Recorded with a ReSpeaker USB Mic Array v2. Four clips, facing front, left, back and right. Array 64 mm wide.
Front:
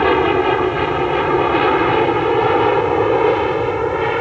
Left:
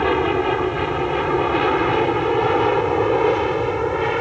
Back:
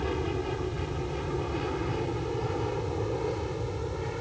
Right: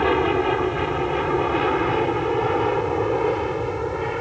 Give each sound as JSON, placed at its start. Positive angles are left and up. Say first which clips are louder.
{"t": 0.0, "sound": "an aircraft", "louder": "left 1 dB, front 17 dB", "azimuth_deg": 0}